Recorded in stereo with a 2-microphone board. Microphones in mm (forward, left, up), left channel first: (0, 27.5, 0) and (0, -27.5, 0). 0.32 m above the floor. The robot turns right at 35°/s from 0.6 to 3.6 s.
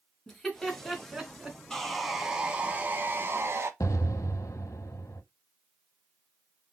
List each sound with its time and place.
0.3 s laughter: 15° left (ahead or behind), 1.9 m; by 1.6 s 15° right (ahead or behind), 1.9 m
1.7 s sawing: 170° left, 0.8 m; by 3.7 s 120° right, 0.8 m
3.8 s an explosion: 75° left (ahead or behind), 0.6 m